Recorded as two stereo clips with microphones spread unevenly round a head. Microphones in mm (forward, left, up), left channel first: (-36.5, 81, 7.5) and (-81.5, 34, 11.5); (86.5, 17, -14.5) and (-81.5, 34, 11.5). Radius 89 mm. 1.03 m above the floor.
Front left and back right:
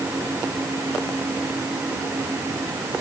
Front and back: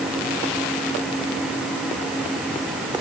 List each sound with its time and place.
Only background noise.